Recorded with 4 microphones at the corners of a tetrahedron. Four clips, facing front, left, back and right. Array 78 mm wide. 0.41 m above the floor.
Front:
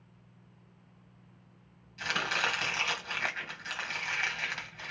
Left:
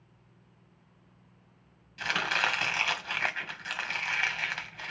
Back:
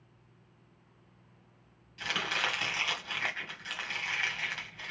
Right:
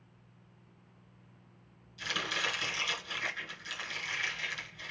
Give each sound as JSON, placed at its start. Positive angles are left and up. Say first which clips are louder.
{"t": 2.0, "sound": "chopping", "louder": "left 6 dB, front 2 dB", "azimuth_deg": 75, "distance_m": 1.6}